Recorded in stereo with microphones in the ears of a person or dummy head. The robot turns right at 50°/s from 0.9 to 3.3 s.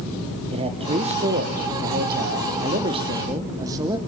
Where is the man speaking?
145° right, 1.0 m; by 4.0 s 25° right, 1.0 m.